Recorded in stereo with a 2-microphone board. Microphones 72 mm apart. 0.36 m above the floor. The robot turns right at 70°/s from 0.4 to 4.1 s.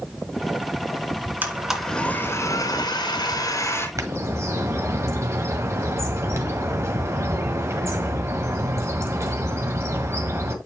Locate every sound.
1.4 s a blender: 30° right, 1.8 m; by 3.9 s 145° left, 1.8 m
4.0 s a bird: 50° right (ahead or behind), 1.6 m; by 10.6 s 40° right (ahead or behind), 1.6 m